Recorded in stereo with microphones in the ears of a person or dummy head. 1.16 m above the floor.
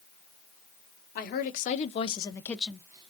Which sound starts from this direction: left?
A woman speaking, at 1.1 s.